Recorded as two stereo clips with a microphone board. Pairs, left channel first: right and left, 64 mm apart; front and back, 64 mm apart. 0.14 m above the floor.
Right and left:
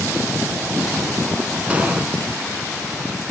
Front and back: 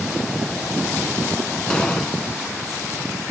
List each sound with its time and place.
1.7 s an explosion: 55° left, 1.1 m